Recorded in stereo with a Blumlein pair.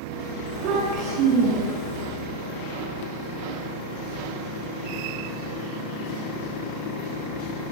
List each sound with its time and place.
0.5 s a child speaking: 40° right, 10 m